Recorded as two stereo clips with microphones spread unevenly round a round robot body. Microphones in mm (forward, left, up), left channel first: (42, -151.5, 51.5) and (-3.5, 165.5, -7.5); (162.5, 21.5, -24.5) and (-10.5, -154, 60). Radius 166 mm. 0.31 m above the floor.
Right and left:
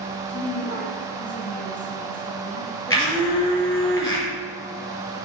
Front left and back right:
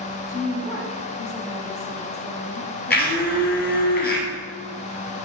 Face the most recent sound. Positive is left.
turn(degrees=0)